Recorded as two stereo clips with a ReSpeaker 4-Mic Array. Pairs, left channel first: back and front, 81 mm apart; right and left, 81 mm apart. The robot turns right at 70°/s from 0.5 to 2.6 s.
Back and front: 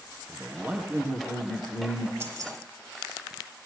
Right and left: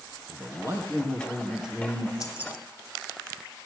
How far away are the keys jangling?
About 1.7 m.